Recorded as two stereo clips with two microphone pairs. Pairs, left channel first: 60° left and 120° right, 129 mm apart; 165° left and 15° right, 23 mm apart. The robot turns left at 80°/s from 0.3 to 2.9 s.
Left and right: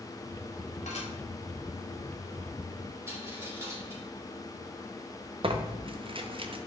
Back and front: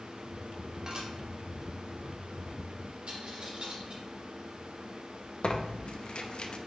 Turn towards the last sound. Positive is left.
turn(degrees=-165)